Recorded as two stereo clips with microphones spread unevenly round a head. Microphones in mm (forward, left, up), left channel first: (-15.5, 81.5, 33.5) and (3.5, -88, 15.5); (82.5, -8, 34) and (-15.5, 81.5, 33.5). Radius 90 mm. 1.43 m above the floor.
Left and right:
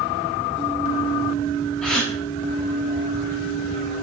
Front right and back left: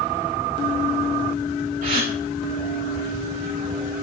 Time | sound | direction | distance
1.8 | a gasp | straight behind | 9 m